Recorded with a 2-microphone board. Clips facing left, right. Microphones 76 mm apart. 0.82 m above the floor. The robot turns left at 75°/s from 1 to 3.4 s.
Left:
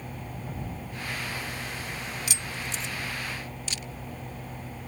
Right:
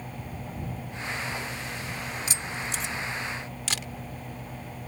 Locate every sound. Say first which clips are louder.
2.3 s keys jangling: right 2 dB; 30° right (ahead or behind); by 2.9 s 80° right
3.7 s a camera shutter: right 4 dB; 80° right